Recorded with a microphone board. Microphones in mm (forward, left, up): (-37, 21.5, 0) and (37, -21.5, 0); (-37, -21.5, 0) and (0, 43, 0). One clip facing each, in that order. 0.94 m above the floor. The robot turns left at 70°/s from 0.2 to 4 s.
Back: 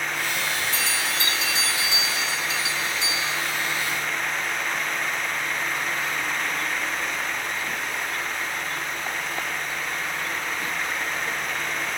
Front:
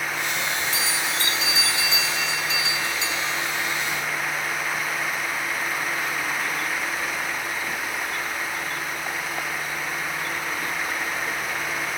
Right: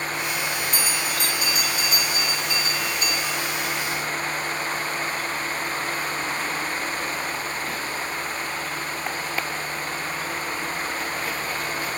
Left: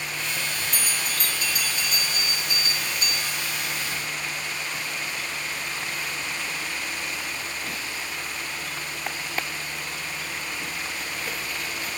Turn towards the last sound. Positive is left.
turn(degrees=-120)